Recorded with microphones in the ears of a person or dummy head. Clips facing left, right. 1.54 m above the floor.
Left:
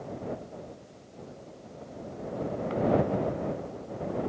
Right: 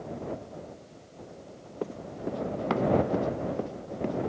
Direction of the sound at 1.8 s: 80° right.